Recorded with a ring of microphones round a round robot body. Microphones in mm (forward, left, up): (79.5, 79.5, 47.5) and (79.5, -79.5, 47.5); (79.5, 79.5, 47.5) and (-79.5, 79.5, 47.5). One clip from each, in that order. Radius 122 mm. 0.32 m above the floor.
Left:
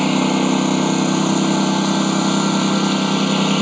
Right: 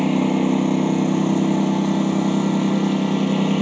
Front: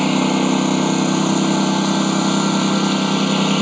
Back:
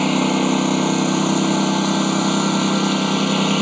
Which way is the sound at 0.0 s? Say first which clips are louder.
Left 3 dB, front 1 dB; 110° left.